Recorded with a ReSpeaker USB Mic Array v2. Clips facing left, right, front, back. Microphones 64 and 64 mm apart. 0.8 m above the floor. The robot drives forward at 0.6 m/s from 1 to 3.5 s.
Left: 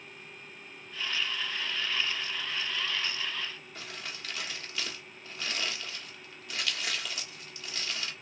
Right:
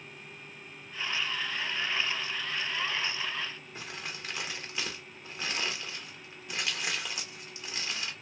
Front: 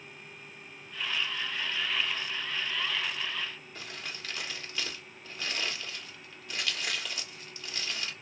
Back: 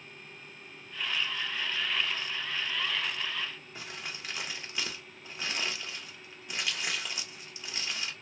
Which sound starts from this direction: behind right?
Crumpling, at 3.8 s.